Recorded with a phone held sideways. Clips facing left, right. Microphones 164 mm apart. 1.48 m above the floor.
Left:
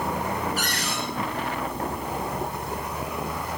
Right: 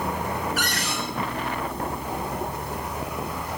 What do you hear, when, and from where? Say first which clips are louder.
0.6 s a cupboard door: right 1 dB; 75° right (ahead or behind), 5.5 m